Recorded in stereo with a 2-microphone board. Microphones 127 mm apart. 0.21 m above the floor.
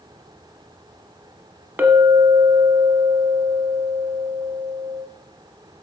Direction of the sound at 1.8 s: 15° right (ahead or behind).